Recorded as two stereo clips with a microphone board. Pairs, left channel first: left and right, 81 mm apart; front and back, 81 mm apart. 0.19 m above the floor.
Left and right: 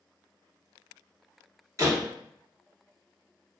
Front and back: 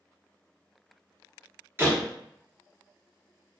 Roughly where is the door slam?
Behind right.